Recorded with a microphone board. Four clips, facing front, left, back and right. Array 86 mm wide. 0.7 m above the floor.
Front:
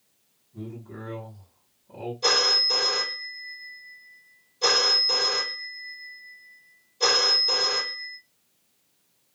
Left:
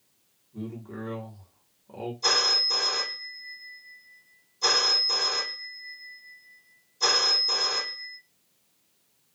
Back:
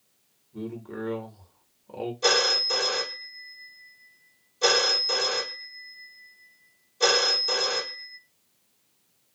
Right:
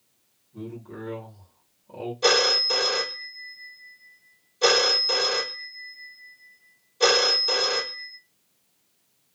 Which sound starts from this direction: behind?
A man speaking, at 0.5 s.